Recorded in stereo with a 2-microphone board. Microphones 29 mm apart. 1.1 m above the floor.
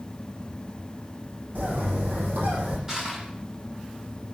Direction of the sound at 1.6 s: 80° right.